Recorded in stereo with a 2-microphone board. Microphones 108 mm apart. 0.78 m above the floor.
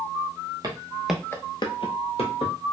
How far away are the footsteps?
About 1.1 m.